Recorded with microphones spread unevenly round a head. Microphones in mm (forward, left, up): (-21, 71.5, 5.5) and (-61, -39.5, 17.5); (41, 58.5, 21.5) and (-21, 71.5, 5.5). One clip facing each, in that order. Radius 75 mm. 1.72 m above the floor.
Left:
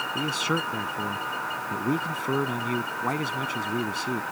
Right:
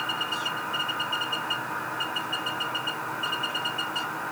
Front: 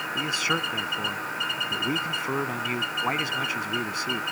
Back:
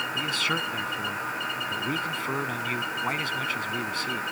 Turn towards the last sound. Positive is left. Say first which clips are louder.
# left 5 dB, front 3 dB
turn(degrees=60)